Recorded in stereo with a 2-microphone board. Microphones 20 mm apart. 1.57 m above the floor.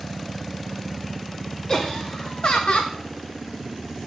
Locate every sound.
1.7 s laughter: 30° left (ahead or behind), 0.8 m; by 3.0 s 65° left (ahead or behind), 0.5 m